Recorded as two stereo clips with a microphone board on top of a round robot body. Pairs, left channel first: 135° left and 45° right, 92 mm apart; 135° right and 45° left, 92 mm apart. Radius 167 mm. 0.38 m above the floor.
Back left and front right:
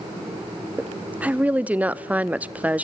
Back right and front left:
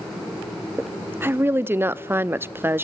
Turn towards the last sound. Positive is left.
turn(degrees=10)